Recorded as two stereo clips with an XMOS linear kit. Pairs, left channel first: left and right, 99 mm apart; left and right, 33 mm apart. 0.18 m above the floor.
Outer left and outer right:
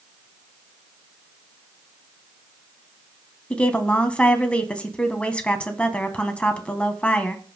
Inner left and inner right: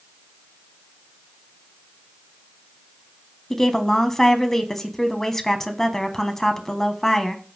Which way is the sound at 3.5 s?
10° left (ahead or behind).